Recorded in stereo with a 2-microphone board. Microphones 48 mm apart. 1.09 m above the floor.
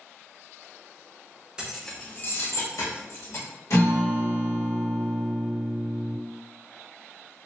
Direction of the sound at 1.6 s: 15° right (ahead or behind).